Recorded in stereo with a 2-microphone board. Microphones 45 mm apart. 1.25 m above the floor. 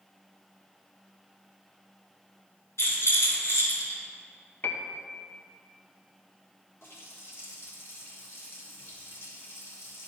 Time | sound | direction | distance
2.8 | a rattle | 75° left (ahead or behind) | 1.9 m
4.6 | a piano | 50° left (ahead or behind) | 0.5 m
6.8 | a running tap | 70° left (ahead or behind) | 1.4 m